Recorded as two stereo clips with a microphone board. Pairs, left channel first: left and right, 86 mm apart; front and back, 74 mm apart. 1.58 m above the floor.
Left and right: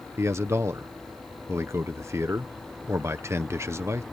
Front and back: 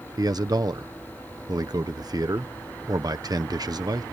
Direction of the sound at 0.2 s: 145° right.